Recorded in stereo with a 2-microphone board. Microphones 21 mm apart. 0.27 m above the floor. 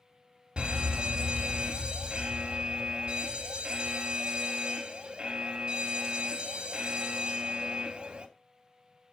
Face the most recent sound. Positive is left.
turn(degrees=-45)  # may be behind; listen again after turning